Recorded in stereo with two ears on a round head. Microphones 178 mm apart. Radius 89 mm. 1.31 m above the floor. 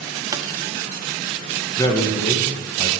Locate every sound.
0.3 s a pop: 20° right (ahead or behind), 0.7 m
1.8 s a man speaking: 15° left (ahead or behind), 1.2 m